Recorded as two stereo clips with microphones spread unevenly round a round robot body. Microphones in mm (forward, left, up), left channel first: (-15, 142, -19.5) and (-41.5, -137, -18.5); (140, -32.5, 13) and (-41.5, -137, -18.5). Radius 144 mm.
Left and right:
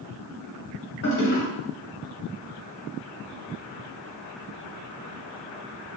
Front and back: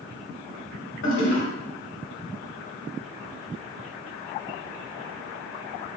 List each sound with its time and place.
1.0 s a toilet flushing: 40° left, 0.9 m